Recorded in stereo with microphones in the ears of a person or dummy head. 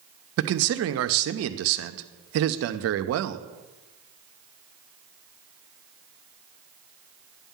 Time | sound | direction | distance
0.4 | a man speaking | 70° right (ahead or behind) | 0.6 m